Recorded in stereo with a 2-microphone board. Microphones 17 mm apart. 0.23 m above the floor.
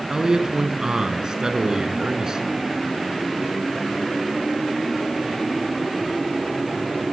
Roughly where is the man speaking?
Right.